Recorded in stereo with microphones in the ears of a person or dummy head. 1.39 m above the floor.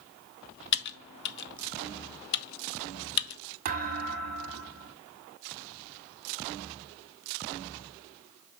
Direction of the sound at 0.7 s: 60° left (ahead or behind).